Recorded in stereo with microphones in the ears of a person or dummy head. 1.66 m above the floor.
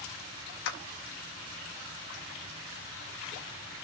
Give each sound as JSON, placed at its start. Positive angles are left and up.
{"t": 0.7, "sound": "a clap", "side_deg": 70, "distance_m": 1.2}